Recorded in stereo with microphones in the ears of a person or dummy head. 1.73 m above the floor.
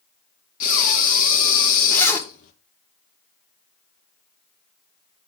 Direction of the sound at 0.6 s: 55° left (ahead or behind).